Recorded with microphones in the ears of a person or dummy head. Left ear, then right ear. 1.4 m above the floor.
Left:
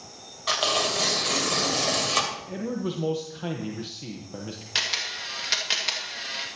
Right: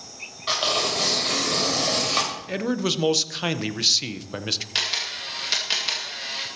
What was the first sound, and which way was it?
Tearing paper, 15° left (ahead or behind).